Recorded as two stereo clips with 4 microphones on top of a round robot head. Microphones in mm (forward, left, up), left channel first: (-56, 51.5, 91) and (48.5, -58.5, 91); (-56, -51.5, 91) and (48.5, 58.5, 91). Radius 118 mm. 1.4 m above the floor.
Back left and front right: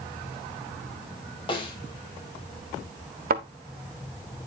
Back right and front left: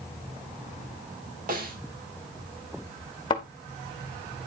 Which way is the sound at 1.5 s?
75° left.